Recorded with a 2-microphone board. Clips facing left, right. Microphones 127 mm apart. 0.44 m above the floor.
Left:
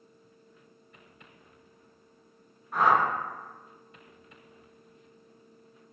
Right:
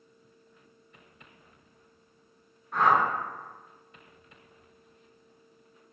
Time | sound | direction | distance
2.7 | a whoosh | 5° left (ahead or behind) | 0.7 m